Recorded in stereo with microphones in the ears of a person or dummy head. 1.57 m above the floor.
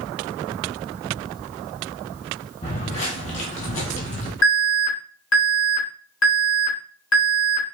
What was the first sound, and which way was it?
Footsteps, 30° left (ahead or behind).